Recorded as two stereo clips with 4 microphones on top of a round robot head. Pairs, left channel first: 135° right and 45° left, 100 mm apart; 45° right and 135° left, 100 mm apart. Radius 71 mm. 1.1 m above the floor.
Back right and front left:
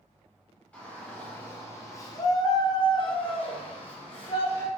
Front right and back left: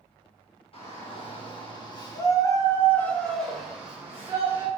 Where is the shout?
60° right, 1.6 m; by 4.7 s 165° right, 1.4 m.